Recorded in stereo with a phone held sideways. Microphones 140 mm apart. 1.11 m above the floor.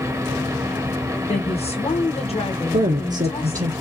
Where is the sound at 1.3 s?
45° left (ahead or behind), 1.7 m.